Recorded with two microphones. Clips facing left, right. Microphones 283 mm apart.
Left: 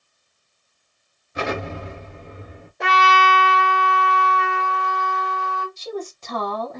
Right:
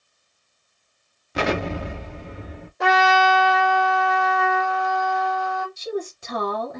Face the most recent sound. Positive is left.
turn(degrees=-10)  # may be behind; listen again after turning